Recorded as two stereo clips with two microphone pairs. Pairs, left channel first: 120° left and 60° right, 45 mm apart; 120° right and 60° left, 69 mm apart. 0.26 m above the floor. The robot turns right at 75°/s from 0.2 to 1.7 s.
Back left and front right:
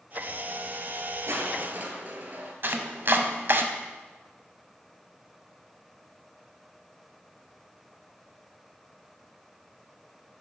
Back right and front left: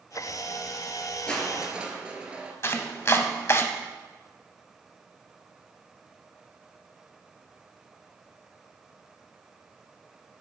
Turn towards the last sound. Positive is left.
turn(degrees=-75)